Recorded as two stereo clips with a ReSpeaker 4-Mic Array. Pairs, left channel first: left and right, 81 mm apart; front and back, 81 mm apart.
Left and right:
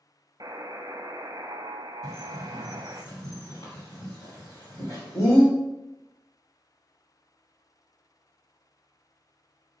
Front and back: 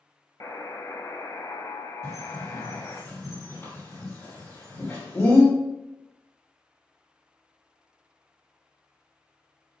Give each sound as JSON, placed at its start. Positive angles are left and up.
{"t": 0.4, "sound": "a buzzer", "azimuth_deg": -45, "distance_m": 0.7}
{"t": 2.0, "sound": "a bird", "azimuth_deg": 50, "distance_m": 4.0}